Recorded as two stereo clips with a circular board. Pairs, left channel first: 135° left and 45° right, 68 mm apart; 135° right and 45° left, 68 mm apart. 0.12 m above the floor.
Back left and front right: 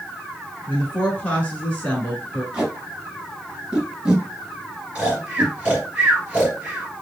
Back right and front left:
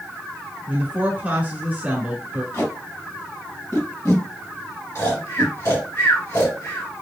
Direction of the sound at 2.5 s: 120° right.